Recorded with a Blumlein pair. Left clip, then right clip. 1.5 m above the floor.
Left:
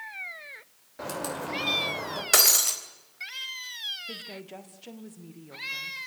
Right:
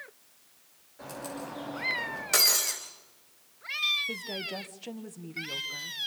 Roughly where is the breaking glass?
Left.